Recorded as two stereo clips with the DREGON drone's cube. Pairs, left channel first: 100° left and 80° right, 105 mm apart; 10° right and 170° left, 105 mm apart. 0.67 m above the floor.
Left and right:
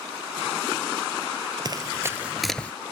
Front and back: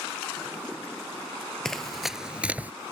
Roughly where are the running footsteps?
Right.